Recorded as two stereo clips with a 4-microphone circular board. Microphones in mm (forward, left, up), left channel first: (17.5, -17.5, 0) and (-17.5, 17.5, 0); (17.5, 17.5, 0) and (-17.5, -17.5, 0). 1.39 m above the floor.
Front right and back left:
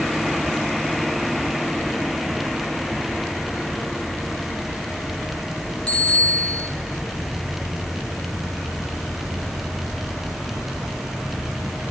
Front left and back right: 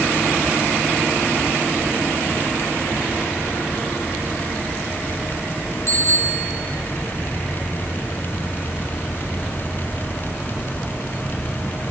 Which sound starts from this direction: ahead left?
A bicycle bell, at 5.9 s.